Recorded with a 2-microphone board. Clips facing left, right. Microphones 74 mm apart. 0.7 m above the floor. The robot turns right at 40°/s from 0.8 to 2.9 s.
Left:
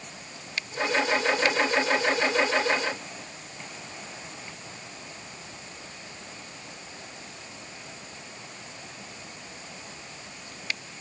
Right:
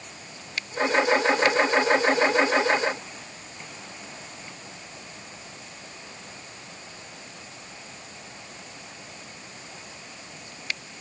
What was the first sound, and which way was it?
Only background noise.